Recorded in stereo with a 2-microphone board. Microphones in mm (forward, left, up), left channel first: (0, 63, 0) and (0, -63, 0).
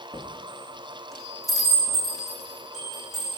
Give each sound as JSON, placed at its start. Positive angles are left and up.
{"t": 0.1, "sound": "a chime", "side_deg": 0, "distance_m": 7.5}